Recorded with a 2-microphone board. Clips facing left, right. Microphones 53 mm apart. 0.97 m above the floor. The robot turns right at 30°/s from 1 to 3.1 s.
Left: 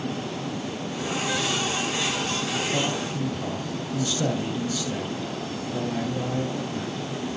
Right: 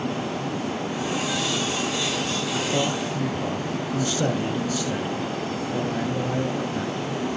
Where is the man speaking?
35° right (ahead or behind), 3 m; by 7.2 s 20° right (ahead or behind), 3 m.